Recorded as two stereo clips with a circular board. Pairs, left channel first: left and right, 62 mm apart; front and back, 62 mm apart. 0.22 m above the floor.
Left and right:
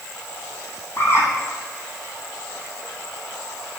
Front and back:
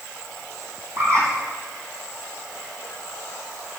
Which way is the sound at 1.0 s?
140° left.